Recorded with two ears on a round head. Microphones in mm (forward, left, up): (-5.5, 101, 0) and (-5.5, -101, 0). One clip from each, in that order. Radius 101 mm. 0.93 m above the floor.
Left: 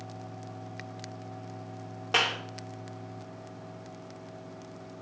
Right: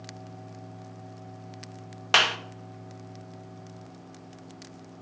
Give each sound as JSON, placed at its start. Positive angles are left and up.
{"t": 2.1, "sound": "a clap", "side_deg": -50, "distance_m": 0.9}